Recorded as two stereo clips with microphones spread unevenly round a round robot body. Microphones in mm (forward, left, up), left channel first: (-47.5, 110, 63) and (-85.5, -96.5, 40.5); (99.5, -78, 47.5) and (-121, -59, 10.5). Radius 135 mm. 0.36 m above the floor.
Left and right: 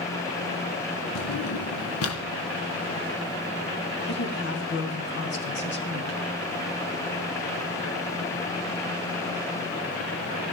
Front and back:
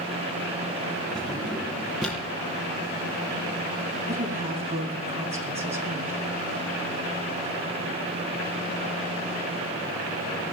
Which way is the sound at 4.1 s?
110° left.